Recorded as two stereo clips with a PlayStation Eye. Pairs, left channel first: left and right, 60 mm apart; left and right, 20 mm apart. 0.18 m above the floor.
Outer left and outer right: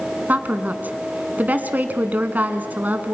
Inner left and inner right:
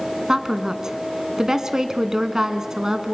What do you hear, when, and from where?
0.3 s a woman speaking: 30° right (ahead or behind), 1.8 m